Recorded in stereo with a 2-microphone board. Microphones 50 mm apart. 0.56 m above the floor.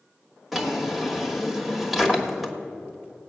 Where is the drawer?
5° right (ahead or behind), 1.2 m.